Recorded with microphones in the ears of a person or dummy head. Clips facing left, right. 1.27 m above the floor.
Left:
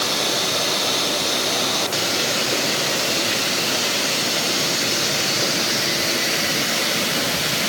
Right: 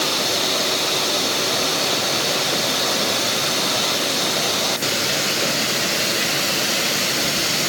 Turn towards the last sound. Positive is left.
No sound to turn to.